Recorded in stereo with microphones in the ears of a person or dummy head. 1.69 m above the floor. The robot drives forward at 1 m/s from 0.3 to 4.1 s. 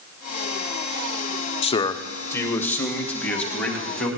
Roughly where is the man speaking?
Left.